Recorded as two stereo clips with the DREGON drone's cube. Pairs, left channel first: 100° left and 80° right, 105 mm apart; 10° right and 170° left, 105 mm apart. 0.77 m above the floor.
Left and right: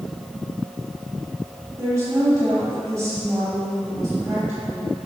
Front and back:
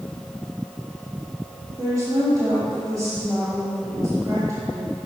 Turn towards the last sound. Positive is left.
turn(degrees=-140)